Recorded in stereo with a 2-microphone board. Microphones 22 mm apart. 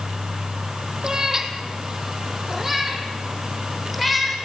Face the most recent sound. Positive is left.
turn(degrees=0)  # may be behind; listen again after turning